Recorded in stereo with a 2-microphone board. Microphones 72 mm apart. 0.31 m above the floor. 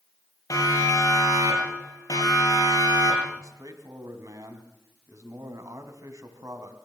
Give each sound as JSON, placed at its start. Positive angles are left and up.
{"t": 0.5, "sound": "a siren", "side_deg": 55, "distance_m": 8.0}
{"t": 3.4, "sound": "a man speaking", "side_deg": -50, "distance_m": 3.0}